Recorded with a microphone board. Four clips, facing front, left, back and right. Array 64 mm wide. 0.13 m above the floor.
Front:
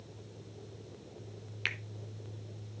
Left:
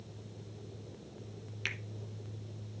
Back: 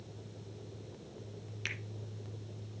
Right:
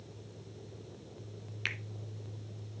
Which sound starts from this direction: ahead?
A finger snap, at 1.6 s.